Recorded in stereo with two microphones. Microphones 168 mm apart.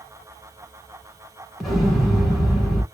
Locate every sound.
1.6 s an explosion: centre (ahead or behind), 1.2 m